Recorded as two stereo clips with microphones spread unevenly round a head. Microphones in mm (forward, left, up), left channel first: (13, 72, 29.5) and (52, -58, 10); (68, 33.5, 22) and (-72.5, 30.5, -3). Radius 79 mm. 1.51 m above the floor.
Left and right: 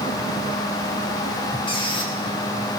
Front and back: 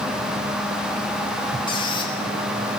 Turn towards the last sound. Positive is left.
turn(degrees=55)